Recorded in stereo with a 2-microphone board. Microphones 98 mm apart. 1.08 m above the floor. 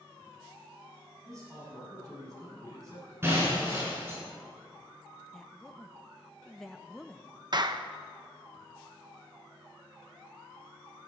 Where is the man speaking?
35° right (ahead or behind), 6.5 m; by 3.1 s 40° right (ahead or behind), 8.5 m.